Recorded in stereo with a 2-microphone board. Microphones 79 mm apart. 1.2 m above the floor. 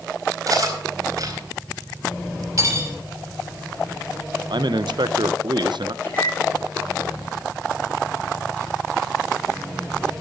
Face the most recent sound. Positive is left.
turn(degrees=25)  # may be behind; listen again after turning